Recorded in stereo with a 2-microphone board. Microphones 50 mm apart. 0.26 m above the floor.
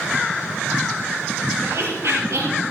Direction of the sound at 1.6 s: 60° right (ahead or behind).